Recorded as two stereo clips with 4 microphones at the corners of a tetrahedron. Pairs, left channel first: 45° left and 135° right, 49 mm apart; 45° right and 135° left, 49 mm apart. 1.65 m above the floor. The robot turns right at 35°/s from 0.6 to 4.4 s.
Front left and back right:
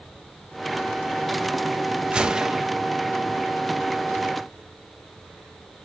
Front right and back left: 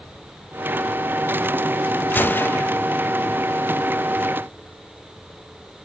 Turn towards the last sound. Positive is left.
turn(degrees=10)